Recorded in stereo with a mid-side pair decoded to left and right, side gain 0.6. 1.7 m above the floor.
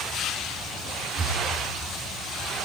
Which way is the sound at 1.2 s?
25° right.